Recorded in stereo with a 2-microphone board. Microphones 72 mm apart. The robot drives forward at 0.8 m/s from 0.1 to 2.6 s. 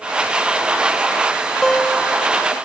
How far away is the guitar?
About 0.9 m.